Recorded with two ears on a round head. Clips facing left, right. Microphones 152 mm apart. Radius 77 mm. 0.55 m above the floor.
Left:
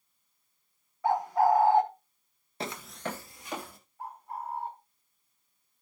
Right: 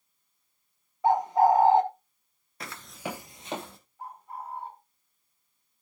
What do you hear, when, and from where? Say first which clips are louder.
1.0 s a bird: right 3 dB; 20° right (ahead or behind), 1.0 m
2.6 s footsteps: left 2 dB; 25° left (ahead or behind), 0.5 m; by 3.8 s 25° right (ahead or behind), 1.4 m
4.0 s a bird: left 1 dB; 75° right (ahead or behind), 4.5 m